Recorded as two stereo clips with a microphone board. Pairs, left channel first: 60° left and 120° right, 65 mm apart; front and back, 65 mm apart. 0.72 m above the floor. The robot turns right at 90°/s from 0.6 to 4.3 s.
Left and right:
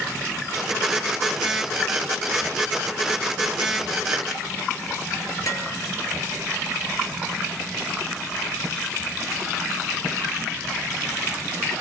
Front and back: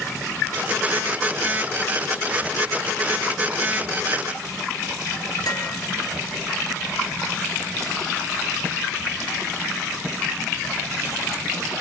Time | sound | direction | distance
5.5 | dishes clattering | 25° left | 9.5 m